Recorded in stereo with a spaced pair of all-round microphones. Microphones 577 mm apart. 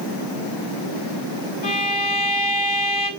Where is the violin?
45° left (ahead or behind), 2.5 m.